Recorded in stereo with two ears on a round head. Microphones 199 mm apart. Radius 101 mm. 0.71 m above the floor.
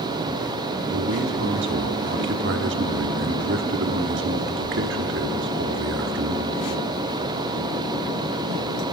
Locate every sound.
0.9 s a man speaking: 55° right (ahead or behind), 1.4 m